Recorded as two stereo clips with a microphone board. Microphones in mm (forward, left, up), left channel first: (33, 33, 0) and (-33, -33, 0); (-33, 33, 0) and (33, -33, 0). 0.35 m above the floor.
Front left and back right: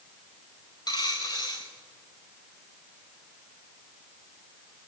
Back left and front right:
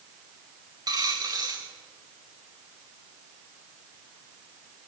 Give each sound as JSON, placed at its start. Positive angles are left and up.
{"t": 0.9, "sound": "a dropped coin", "azimuth_deg": 0, "distance_m": 4.0}